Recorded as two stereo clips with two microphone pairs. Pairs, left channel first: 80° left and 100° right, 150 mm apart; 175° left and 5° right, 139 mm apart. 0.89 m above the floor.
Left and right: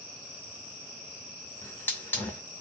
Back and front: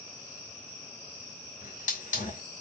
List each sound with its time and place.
1.6 s a hiss: 155° left, 2.5 m